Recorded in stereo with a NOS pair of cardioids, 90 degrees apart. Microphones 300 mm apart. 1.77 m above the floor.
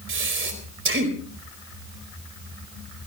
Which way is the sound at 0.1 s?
40° right.